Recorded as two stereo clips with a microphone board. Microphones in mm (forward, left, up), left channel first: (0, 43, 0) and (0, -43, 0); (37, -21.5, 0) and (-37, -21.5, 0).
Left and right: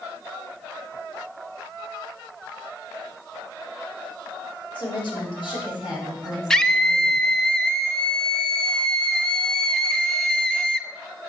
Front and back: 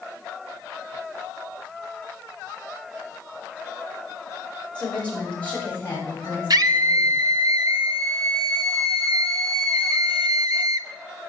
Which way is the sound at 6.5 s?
170° left.